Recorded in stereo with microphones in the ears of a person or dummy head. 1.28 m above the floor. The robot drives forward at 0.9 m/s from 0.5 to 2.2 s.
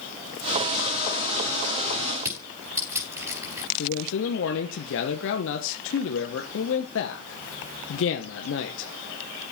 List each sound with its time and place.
2.2 s crushing: 15° right (ahead or behind), 6.5 m
3.8 s a man speaking: 60° left (ahead or behind), 1.1 m